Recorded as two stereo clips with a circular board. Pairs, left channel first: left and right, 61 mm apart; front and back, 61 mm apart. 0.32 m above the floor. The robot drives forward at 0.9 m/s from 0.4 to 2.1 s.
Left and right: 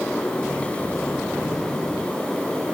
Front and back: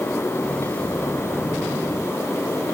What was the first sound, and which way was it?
Only background noise.